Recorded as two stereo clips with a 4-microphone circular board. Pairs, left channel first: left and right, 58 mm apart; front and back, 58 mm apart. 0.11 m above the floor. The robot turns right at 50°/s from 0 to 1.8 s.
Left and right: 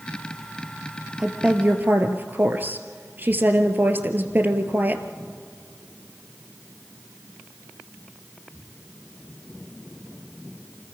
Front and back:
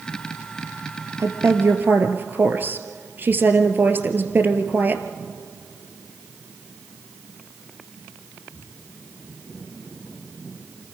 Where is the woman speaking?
165° right, 1.7 m; by 5.0 s 135° right, 1.7 m.